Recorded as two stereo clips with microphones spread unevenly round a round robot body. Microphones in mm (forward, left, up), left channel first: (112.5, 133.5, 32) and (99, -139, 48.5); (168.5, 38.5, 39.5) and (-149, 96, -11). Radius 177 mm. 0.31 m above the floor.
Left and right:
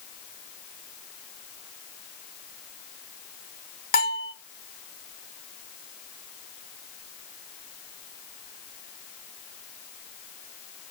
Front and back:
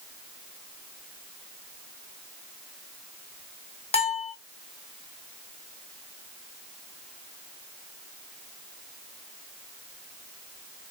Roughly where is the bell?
Ahead left.